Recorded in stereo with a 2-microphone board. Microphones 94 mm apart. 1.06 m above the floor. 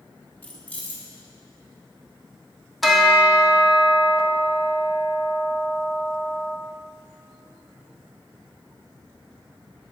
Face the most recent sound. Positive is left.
turn(degrees=0)  # may be behind; listen again after turning